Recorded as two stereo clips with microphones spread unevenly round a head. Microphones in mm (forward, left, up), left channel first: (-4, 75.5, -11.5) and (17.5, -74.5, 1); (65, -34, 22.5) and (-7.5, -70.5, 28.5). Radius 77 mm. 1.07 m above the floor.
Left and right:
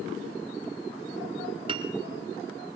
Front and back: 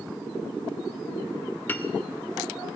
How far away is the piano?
About 1.3 m.